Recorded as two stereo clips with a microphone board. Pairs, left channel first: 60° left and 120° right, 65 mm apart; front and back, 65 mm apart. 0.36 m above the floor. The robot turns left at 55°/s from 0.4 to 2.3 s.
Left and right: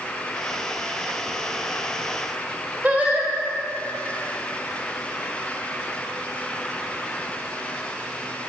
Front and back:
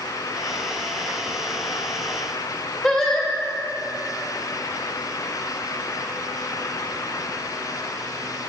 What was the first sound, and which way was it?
Singing, 75° right.